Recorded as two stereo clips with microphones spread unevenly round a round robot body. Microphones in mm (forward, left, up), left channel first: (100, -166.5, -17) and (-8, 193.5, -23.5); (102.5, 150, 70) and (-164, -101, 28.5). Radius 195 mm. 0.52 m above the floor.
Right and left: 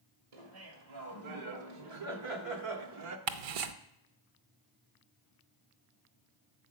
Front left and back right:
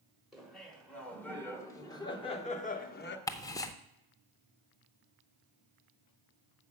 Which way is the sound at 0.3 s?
135° left.